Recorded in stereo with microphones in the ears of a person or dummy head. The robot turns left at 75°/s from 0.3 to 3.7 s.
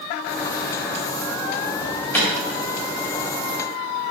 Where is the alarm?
25° right (ahead or behind), 3 m; by 2.3 s 10° left (ahead or behind), 3 m.